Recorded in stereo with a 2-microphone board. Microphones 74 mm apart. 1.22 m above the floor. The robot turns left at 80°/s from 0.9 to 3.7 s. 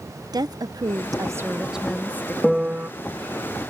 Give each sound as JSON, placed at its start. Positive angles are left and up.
{"t": 0.3, "sound": "a woman speaking", "azimuth_deg": -100}
{"t": 2.4, "sound": "a piano", "azimuth_deg": 0}